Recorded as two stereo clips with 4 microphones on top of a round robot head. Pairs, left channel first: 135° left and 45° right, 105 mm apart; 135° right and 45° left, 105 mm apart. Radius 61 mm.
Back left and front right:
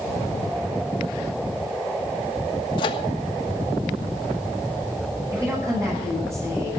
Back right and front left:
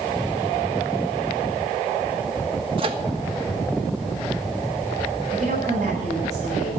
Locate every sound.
2.8 s a microwave: 90° left, 1.3 m
5.3 s a woman speaking: 20° left, 10 m